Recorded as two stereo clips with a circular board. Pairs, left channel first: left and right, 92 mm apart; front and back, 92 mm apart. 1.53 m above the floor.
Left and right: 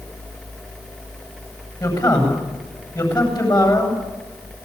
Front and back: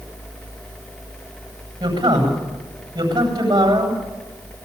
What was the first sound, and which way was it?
A man speaking, 135° left.